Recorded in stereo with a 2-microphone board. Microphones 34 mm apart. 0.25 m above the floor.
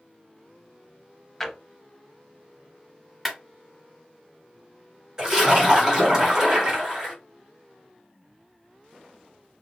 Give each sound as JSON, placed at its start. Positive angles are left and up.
{"t": 1.4, "sound": "a drawer", "side_deg": 10, "distance_m": 0.5}
{"t": 3.2, "sound": "a clap", "side_deg": 0, "distance_m": 1.2}
{"t": 5.2, "sound": "a splash", "side_deg": -20, "distance_m": 1.4}